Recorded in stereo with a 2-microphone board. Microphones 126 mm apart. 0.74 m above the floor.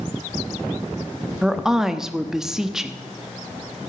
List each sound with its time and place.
1.4 s a woman speaking: 5° right (ahead or behind), 0.9 m